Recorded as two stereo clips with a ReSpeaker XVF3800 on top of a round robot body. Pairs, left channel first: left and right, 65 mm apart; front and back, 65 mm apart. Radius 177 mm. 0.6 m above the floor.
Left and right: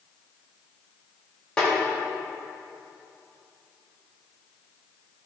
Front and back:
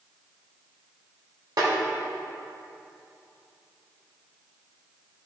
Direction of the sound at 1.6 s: 170° left.